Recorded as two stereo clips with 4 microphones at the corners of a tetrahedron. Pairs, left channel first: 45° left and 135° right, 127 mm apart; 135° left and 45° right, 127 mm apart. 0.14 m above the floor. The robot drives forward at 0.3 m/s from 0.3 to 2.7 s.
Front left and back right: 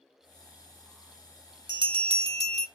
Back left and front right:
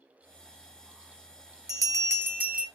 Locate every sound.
1.7 s a bell: 95° right, 0.6 m; by 2.7 s 125° right, 0.7 m